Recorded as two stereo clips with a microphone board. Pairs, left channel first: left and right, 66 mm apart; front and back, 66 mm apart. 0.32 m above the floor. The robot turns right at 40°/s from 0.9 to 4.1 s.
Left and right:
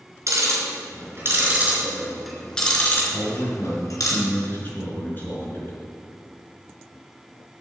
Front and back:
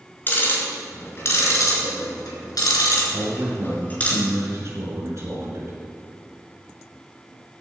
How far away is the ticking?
About 3.5 m.